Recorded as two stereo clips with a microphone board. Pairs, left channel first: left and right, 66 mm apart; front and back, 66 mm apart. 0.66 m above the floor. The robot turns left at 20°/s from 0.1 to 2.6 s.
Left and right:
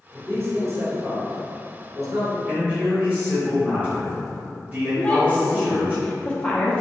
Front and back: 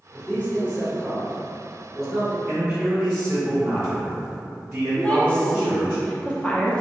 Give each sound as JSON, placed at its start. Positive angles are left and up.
{"t": 0.1, "sound": "a man speaking", "azimuth_deg": -45, "distance_m": 1.9}
{"t": 2.5, "sound": "a man speaking", "azimuth_deg": -125, "distance_m": 0.7}
{"t": 5.0, "sound": "a woman speaking", "azimuth_deg": 50, "distance_m": 0.7}